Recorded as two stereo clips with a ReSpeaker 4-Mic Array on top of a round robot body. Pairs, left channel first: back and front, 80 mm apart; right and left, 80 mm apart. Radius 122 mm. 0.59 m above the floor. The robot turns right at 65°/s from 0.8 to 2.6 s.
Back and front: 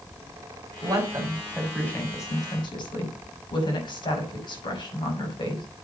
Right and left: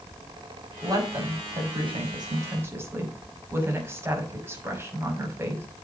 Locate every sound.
0.8 s a woman speaking: 35° left, 6 m; by 5.7 s 155° left, 6 m